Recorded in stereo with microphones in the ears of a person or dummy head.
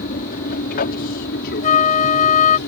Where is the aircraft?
45° left (ahead or behind); by 2.7 s 55° left (ahead or behind).